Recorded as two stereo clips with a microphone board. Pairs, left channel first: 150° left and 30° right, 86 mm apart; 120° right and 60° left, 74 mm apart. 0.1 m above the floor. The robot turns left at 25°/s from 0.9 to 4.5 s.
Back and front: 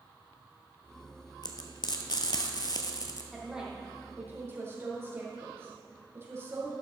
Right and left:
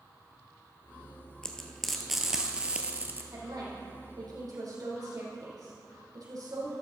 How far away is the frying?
About 1.1 m.